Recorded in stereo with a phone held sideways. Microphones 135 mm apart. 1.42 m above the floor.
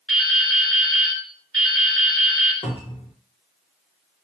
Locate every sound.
0.1 s dripping: 5° left (ahead or behind), 1.5 m
2.6 s a cupboard door: 50° left (ahead or behind), 0.8 m